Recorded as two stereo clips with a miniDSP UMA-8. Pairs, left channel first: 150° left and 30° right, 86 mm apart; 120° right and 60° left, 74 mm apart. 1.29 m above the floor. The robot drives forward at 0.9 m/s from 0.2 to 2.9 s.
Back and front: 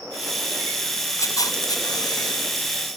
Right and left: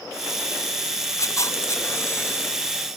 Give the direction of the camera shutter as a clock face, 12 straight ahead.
5 o'clock.